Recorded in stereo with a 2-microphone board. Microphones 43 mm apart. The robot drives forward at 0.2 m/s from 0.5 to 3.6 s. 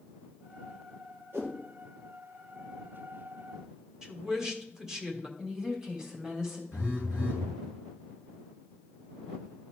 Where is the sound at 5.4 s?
15° right (ahead or behind), 2.5 m.